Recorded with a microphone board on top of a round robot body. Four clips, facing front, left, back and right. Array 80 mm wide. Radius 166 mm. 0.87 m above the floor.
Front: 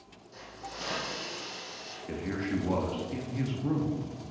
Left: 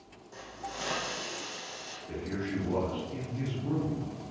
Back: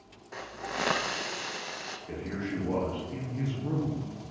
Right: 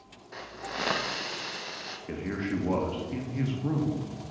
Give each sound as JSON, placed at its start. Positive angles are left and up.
{"t": 0.3, "sound": "a hiss", "azimuth_deg": -150, "distance_m": 0.6}
{"t": 2.1, "sound": "a man speaking", "azimuth_deg": -65, "distance_m": 1.5}